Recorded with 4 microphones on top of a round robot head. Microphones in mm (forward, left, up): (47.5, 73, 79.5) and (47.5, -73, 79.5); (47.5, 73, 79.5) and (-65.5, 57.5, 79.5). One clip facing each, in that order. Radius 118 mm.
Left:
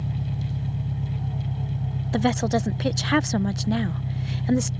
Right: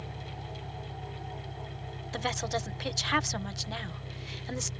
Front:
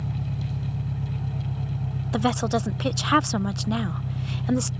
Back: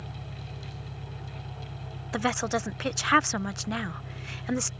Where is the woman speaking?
75° left.